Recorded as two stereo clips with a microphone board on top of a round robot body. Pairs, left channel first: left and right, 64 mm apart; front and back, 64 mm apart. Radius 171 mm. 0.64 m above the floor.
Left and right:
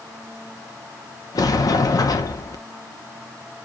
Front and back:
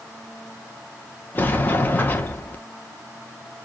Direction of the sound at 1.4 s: 60° left.